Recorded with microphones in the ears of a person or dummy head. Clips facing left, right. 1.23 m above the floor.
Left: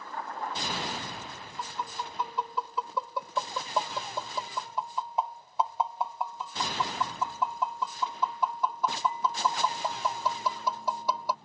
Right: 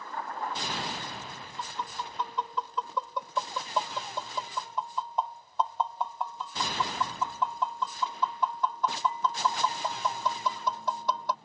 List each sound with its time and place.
1.6 s tapping: 5° left (ahead or behind)